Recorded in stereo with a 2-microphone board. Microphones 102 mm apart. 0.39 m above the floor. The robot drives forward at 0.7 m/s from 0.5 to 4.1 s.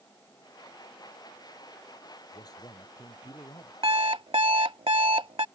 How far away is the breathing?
I don't hear breathing.